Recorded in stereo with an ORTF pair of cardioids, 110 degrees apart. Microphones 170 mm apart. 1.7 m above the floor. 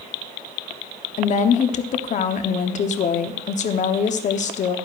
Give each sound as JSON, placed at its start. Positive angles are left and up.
{"t": 1.2, "sound": "a woman speaking", "azimuth_deg": 45, "distance_m": 1.0}